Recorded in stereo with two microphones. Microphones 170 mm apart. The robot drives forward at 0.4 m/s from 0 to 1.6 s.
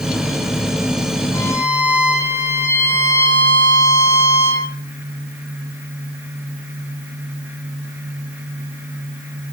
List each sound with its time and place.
1.3 s a violin: 15° left (ahead or behind), 7.5 m